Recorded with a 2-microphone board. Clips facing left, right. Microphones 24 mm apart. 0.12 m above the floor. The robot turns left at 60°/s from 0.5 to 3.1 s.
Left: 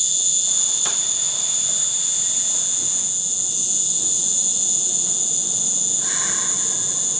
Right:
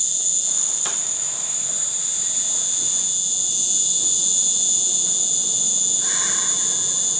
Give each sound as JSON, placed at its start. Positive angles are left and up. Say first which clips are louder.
{"t": 0.0, "sound": "an insect", "louder": "left 3 dB", "azimuth_deg": 155, "distance_m": 1.5}